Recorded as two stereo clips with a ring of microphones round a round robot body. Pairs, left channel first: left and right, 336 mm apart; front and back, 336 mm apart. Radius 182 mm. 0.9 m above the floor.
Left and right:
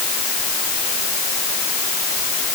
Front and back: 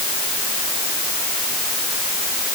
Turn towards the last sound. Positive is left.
No sound to turn to.